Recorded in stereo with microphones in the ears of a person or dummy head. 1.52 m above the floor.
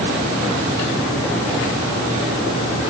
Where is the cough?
No cough in this recording.